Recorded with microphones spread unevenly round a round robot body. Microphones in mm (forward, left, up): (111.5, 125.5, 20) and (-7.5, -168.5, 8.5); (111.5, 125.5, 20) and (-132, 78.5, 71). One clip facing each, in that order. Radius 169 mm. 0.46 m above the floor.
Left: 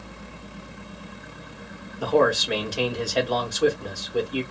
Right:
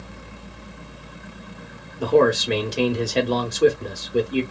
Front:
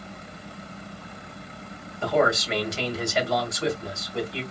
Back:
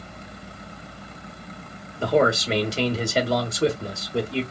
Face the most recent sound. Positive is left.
turn(degrees=-125)